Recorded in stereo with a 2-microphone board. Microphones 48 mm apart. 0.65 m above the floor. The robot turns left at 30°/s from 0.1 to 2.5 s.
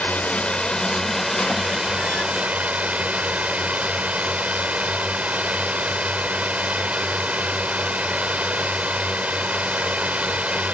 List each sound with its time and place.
0.0 s a drone: 40° left; by 10.7 s 35° right